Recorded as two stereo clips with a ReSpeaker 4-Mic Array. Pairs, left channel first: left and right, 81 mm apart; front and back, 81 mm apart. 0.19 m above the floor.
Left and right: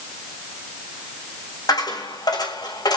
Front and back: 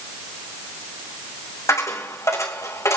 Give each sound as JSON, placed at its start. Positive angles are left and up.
{"t": 1.7, "sound": "a dropped coin", "azimuth_deg": 55, "distance_m": 4.0}